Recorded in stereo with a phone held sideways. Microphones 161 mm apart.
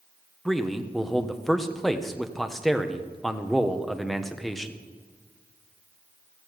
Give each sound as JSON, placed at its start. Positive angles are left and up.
{"t": 0.5, "sound": "a man speaking", "side_deg": 0, "distance_m": 1.3}